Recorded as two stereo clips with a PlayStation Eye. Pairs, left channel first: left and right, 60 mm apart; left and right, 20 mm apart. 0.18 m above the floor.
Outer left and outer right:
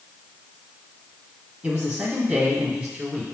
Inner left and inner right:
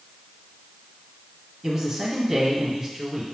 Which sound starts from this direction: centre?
A man speaking, at 1.6 s.